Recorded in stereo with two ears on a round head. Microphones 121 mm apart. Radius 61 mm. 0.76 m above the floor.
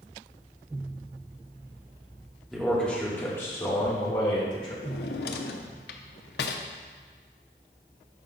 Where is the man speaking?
Centre (ahead or behind), 1.6 m; by 4.7 s 35° left (ahead or behind), 2 m.